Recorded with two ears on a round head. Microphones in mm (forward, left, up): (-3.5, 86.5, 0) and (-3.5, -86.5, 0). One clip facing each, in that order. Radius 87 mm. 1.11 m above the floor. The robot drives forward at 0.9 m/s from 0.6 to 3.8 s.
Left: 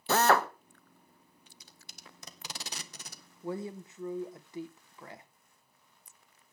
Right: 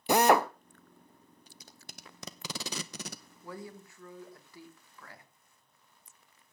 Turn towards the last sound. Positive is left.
turn(degrees=20)  # may be behind; listen again after turning